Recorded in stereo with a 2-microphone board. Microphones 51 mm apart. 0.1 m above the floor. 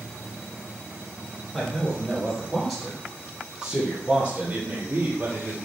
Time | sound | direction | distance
1.5 | a man speaking | 15° left (ahead or behind) | 2.5 m